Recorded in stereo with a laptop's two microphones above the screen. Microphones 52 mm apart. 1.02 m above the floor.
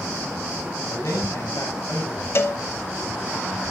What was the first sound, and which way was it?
A man speaking, 65° left (ahead or behind).